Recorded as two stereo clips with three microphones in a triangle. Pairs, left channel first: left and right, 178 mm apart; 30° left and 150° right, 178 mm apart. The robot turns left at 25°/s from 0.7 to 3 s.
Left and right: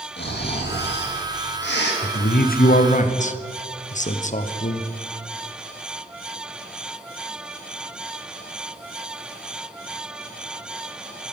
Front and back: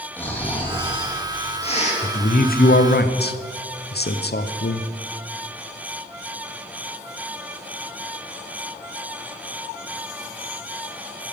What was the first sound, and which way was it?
Snoring, 110° left.